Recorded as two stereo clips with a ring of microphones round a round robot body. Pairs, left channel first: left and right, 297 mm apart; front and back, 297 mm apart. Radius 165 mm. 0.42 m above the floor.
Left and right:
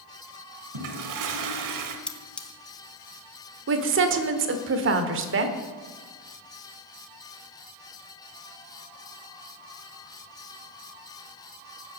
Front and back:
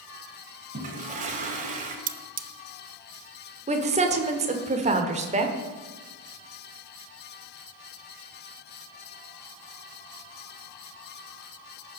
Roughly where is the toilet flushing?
Behind right.